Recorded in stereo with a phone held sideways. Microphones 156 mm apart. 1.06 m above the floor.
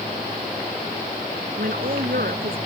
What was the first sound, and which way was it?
A woman speaking, 70° right (ahead or behind).